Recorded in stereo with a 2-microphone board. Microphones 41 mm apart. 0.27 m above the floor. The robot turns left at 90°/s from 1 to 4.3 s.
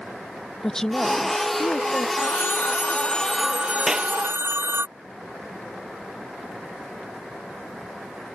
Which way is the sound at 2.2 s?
110° left.